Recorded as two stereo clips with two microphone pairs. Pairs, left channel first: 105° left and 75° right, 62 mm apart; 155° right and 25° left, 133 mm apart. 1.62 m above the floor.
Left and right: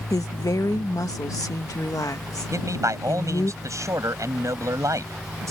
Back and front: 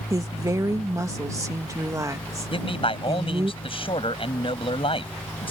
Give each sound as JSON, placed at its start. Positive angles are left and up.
{"t": 0.1, "sound": "a woman speaking", "azimuth_deg": 95}
{"t": 2.5, "sound": "a man speaking", "azimuth_deg": -105}